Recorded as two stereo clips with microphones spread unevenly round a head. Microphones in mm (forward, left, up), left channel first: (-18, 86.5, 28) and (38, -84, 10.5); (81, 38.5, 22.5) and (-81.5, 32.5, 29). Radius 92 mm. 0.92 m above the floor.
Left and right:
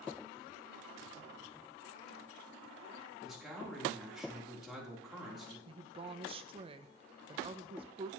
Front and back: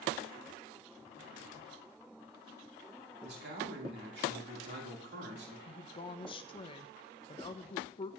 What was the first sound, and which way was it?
A man speaking, 160° right.